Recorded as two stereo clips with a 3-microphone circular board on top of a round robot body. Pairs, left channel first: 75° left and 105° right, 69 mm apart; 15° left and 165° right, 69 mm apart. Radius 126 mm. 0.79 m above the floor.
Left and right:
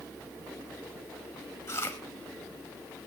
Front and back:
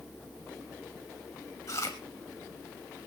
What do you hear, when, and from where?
1.7 s chewing: 40° left, 0.6 m